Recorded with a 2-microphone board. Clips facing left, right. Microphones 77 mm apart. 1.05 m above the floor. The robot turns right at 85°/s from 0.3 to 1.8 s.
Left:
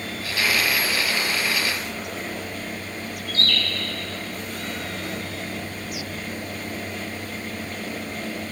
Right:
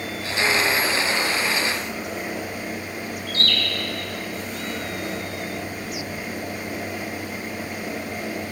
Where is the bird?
80° right, 2.5 m.